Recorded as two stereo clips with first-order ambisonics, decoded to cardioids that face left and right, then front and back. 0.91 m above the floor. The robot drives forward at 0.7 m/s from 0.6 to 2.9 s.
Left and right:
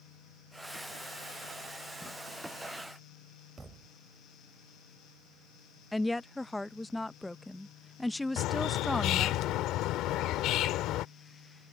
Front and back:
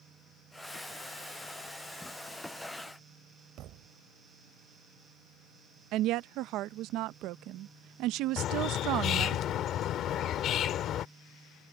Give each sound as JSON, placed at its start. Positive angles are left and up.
{"t": 3.6, "sound": "a thud", "azimuth_deg": -160}
{"t": 5.9, "sound": "a woman speaking", "azimuth_deg": 175}
{"t": 8.4, "sound": "a bird", "azimuth_deg": 50}